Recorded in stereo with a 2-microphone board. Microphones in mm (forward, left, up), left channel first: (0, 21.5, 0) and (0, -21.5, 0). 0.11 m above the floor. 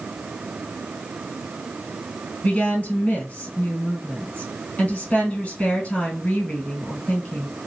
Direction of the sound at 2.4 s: 35° left (ahead or behind).